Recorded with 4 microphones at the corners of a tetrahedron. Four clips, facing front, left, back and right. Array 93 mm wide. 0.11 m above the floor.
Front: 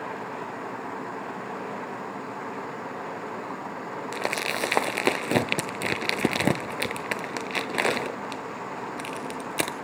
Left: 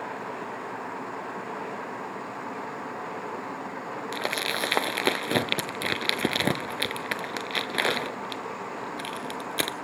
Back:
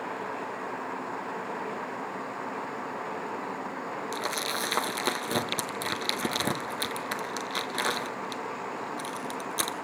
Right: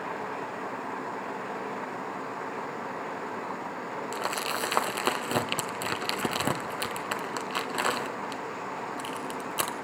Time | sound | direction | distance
4.1 | crumpling | 30° left | 0.7 m